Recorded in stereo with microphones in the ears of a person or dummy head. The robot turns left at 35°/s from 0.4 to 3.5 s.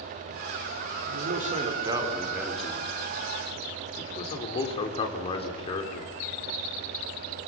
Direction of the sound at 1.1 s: 130° right.